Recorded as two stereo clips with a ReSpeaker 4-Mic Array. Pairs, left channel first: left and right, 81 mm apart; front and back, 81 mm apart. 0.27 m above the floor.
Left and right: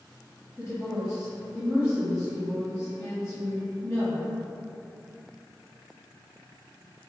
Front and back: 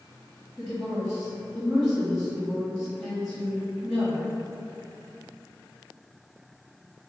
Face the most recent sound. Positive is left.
turn(degrees=95)